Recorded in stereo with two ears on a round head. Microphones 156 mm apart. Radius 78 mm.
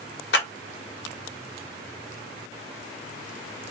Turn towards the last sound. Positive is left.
turn(degrees=70)  # may be behind; listen again after turning